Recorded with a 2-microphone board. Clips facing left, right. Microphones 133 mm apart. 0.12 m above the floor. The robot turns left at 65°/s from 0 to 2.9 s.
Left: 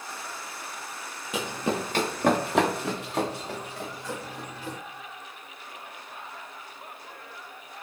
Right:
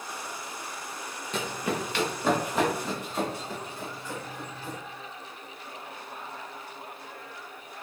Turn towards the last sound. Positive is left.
turn(degrees=85)